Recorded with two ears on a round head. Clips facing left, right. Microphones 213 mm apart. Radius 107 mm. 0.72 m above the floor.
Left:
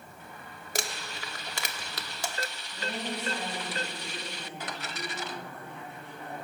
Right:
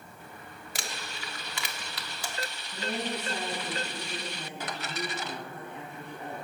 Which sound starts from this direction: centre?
A woman speaking, at 2.7 s.